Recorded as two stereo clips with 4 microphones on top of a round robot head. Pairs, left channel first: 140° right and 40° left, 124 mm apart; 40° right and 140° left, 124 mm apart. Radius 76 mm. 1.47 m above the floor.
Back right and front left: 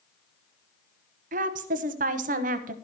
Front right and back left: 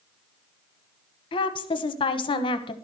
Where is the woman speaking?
15° left, 0.7 m.